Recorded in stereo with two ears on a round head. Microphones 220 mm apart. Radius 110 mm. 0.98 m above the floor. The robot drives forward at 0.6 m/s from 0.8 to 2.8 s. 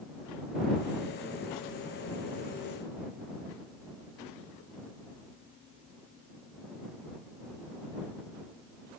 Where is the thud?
I don't hear a thud.